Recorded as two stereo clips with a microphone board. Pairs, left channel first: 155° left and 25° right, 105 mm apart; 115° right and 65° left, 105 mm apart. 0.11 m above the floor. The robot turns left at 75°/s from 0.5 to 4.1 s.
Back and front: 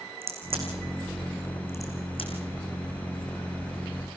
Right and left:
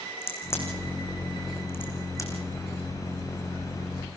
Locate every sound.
0.2 s a crack: 45° right, 5 m; by 2.4 s 170° left, 5 m